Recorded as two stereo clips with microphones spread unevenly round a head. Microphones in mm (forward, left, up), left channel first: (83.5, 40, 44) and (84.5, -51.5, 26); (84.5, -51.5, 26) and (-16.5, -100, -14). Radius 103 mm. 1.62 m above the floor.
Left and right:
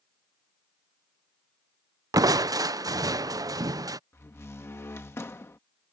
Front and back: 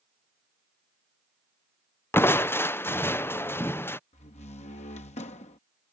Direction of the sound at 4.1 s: 30° left.